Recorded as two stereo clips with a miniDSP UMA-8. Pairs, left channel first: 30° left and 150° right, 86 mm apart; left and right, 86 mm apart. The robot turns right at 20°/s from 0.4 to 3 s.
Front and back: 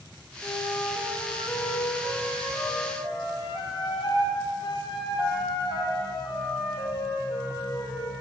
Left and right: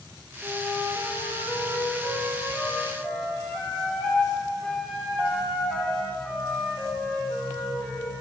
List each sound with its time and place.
0.4 s a flute: 45° right, 1.3 m; by 8.1 s 5° left, 1.3 m